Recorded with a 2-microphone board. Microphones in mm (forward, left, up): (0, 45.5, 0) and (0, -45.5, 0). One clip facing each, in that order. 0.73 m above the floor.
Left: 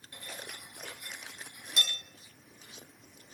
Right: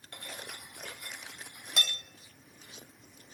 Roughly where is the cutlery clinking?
Right.